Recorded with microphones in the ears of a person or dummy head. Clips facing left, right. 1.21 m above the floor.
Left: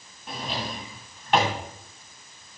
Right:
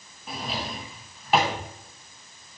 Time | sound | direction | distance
0.3 | a drawer | 5° right (ahead or behind) | 2 m